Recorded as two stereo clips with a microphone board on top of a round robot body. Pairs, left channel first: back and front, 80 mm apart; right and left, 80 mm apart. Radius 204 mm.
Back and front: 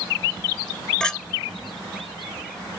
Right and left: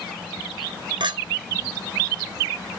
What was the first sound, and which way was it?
A clink, 100° left.